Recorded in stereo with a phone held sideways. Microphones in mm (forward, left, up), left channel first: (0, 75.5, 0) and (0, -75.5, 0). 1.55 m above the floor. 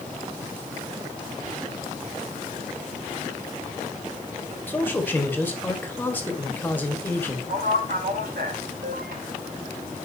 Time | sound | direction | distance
4.7 | a man speaking | 15° left (ahead or behind) | 1.4 m
7.5 | a man speaking | 80° right | 2.5 m